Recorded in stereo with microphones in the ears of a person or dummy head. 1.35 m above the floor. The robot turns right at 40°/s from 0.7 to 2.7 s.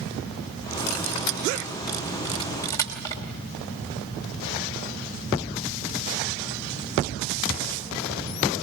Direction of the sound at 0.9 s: 75° left (ahead or behind).